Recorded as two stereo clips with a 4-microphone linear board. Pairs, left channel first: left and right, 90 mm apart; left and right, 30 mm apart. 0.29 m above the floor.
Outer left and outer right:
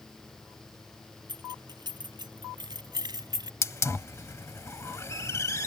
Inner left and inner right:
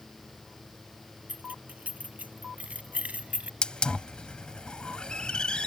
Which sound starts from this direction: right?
Keys jangling, at 1.3 s.